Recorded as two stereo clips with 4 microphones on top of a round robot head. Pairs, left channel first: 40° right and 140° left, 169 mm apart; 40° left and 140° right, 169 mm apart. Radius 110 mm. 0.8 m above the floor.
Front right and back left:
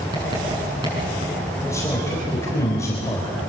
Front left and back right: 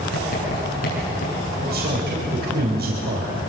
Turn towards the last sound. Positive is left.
turn(degrees=-110)